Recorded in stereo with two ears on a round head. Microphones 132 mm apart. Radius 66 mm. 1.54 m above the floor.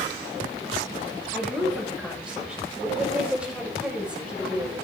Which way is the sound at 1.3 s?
5° right (ahead or behind).